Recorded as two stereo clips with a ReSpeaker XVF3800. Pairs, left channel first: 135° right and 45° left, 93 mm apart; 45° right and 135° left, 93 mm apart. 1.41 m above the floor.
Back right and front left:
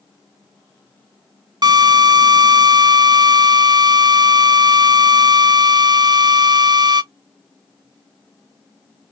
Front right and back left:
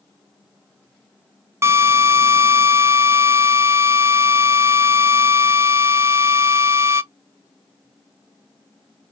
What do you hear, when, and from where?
1.6 s a drill: 80° left, 0.5 m